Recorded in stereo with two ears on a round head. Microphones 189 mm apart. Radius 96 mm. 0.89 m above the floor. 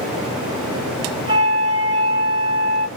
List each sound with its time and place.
1.3 s a flute: 20° right (ahead or behind), 4 m